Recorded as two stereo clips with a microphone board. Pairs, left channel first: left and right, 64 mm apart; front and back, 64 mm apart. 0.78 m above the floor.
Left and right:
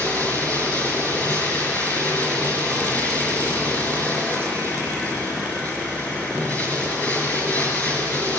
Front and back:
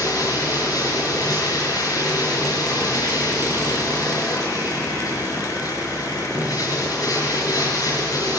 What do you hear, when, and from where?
0.0 s running water: 25° left, 4.5 m